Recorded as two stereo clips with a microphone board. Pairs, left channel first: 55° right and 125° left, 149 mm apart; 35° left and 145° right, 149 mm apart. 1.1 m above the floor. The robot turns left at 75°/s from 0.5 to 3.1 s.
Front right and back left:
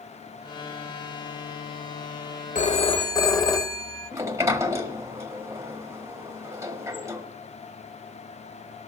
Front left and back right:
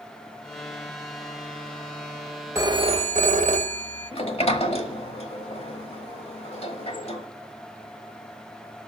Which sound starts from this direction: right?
A phone ringing, at 2.5 s.